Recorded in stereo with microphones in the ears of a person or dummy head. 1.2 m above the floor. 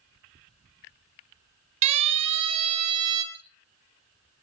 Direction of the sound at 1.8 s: 35° right (ahead or behind).